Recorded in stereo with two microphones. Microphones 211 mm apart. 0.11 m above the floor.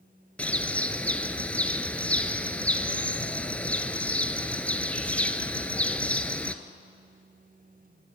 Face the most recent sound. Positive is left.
turn(degrees=5)  # may be behind; listen again after turning